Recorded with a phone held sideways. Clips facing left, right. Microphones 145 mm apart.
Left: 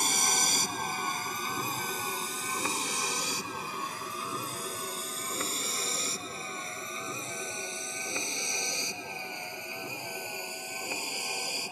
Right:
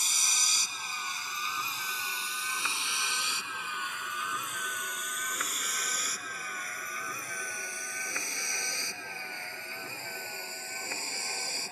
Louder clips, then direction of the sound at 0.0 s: Left 10 dB; 65° left (ahead or behind).